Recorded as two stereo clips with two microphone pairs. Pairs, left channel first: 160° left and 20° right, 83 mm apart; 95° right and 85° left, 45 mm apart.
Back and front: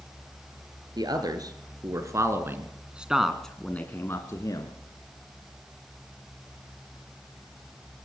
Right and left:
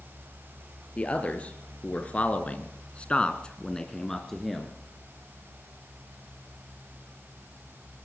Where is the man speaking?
40° right, 3 m; by 4.7 s 175° left, 2 m.